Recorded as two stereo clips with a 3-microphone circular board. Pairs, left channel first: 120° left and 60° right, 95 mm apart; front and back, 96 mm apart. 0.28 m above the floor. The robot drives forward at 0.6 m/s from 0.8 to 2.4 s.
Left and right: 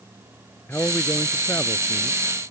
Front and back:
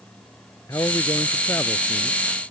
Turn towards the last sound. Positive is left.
turn(degrees=65)